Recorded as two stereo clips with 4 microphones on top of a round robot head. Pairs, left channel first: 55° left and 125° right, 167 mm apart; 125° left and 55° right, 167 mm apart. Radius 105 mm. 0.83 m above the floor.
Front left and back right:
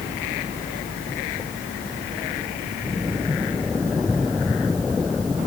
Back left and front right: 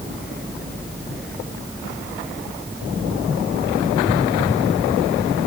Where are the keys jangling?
I don't hear keys jangling.